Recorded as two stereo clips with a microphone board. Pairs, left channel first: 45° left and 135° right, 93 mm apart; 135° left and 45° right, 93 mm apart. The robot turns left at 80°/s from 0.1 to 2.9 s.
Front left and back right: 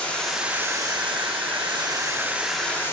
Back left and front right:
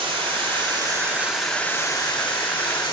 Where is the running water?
30° right, 2 m; by 2.9 s 105° left, 2 m.